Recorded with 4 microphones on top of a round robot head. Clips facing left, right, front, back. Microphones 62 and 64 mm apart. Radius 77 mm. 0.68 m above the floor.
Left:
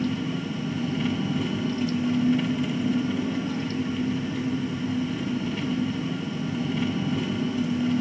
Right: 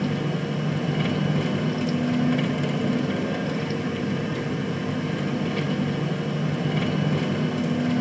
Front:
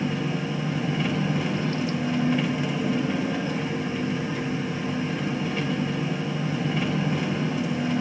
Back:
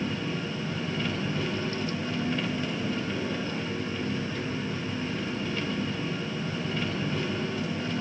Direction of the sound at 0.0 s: 75° right.